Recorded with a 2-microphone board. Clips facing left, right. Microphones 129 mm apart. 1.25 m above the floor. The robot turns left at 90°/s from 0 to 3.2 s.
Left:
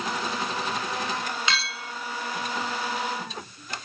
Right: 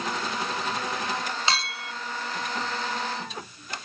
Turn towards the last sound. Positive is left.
turn(degrees=170)